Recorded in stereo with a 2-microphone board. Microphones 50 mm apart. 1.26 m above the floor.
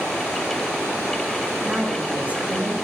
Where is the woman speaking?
30° right (ahead or behind), 2.5 m.